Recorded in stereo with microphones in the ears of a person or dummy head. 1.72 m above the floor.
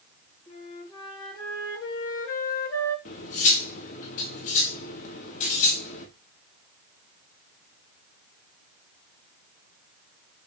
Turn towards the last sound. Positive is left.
turn(degrees=50)  # may be behind; listen again after turning